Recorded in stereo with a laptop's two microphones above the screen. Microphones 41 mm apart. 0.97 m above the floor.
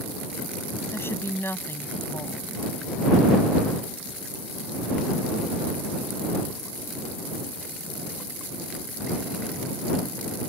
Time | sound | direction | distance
0.9 | a woman speaking | 85° left | ?